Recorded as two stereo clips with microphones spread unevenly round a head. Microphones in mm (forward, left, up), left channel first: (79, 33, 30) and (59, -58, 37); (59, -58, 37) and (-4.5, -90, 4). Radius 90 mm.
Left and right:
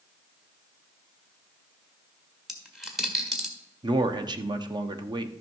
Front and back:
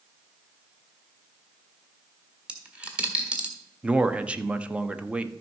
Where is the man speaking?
70° right, 1.0 m.